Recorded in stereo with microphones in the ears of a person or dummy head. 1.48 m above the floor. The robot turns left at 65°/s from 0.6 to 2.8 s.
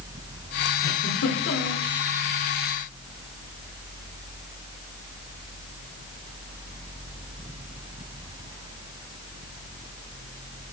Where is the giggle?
125° left, 3.5 m; by 1.8 s 60° left, 3.5 m.